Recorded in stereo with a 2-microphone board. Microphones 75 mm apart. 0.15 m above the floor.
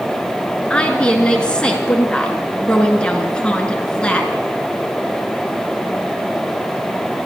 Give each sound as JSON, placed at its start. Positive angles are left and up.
{"t": 0.7, "sound": "a woman speaking", "side_deg": 15, "distance_m": 1.9}